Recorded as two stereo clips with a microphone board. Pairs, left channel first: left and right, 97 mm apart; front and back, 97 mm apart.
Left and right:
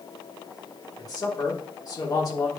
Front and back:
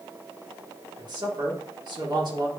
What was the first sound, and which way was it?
A man speaking, 135° left.